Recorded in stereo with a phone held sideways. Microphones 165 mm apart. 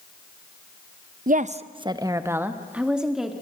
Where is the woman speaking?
55° right (ahead or behind), 0.9 m; by 3.3 s centre (ahead or behind), 2.5 m.